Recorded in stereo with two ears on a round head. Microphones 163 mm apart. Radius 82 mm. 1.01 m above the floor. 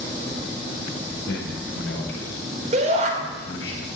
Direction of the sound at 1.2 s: 70° left (ahead or behind).